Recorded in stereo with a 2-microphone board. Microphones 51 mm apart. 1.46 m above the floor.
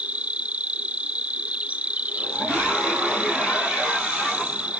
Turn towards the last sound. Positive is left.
turn(degrees=-30)  # may be behind; listen again after turning